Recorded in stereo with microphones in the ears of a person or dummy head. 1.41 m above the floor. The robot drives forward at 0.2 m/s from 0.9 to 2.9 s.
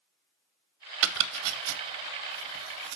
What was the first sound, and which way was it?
Chopping, 75° right (ahead or behind).